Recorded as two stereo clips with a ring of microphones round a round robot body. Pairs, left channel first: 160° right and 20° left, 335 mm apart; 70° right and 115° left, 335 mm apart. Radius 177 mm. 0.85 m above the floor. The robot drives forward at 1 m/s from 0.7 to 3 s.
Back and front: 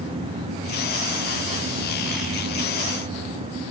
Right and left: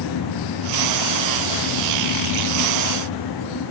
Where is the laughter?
I don't hear laughter.